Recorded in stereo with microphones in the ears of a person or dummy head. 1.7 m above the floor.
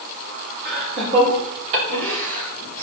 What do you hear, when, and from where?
0.7 s laughter: 50° right (ahead or behind), 4.5 m; by 2.8 s 70° right (ahead or behind), 6.5 m